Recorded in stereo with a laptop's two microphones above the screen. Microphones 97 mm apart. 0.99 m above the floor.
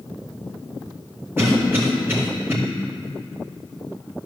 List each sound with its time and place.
1.4 s a cough: 20° right (ahead or behind), 2 m